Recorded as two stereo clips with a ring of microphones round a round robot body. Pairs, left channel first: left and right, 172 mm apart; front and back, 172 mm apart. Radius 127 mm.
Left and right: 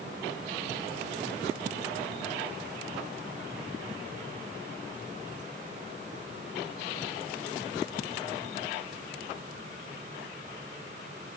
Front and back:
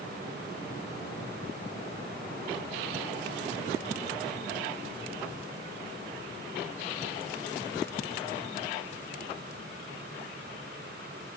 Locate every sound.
Only background noise.